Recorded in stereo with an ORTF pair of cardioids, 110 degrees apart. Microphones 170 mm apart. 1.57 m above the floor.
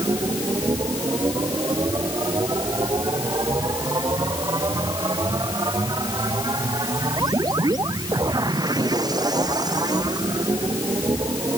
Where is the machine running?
25° right.